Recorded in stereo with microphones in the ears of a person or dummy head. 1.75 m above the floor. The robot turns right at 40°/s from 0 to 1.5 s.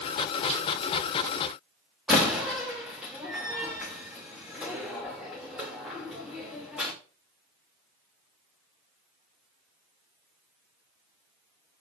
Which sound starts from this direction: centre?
A door slam, at 2.1 s.